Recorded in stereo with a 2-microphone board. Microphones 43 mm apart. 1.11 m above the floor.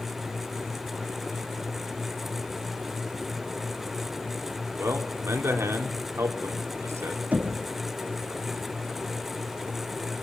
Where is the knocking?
40° right (ahead or behind), 2 m.